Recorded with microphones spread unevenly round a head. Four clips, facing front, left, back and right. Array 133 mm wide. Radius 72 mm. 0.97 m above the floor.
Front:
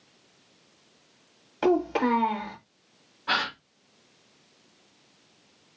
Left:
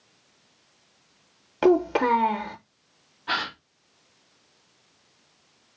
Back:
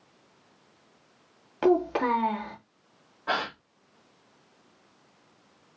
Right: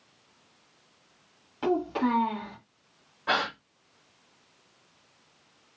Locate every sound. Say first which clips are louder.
1.6 s a child speaking: left 7 dB, even; 85° left, 0.7 m
3.3 s a gasp: right 2 dB, front 1 dB; 145° right, 1.8 m